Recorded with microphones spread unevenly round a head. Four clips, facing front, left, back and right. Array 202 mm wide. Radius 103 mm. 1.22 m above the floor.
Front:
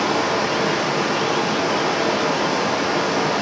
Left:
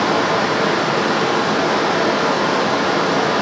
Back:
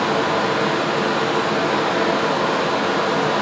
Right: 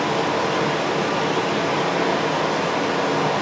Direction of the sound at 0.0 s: 85° left.